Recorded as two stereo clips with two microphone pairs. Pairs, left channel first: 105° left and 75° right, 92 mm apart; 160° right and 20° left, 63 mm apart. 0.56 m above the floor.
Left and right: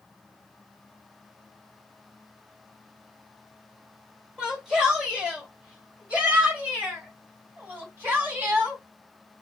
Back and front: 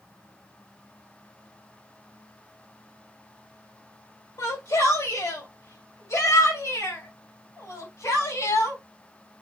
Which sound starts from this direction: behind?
A shout, at 4.4 s.